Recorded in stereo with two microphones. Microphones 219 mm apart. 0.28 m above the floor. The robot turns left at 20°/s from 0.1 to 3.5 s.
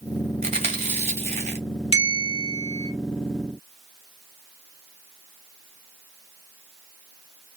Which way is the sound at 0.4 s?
30° right (ahead or behind).